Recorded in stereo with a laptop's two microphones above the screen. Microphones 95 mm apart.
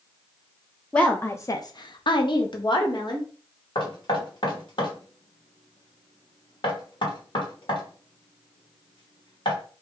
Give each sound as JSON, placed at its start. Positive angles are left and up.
{"t": 0.9, "sound": "a woman speaking", "side_deg": 10, "distance_m": 0.6}
{"t": 3.8, "sound": "knocking", "side_deg": 55, "distance_m": 1.2}